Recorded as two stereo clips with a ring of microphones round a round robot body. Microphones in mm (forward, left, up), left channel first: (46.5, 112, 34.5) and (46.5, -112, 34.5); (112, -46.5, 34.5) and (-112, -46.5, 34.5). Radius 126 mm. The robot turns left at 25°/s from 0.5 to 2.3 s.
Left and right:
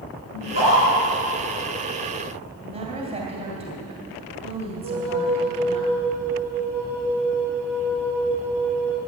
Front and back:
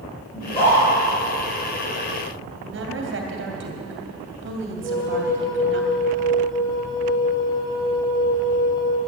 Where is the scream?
70° left, 5.5 m; by 0.9 s 60° left, 5.5 m.